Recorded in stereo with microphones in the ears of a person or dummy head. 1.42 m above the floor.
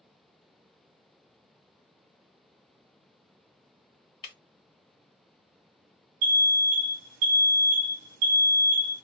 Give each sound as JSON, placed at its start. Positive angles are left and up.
{"t": 4.2, "sound": "breaking glass", "side_deg": 25, "distance_m": 1.4}
{"t": 6.2, "sound": "an alarm", "side_deg": -90, "distance_m": 0.7}